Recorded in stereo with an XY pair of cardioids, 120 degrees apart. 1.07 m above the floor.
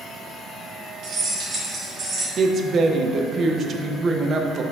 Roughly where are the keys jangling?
Ahead right.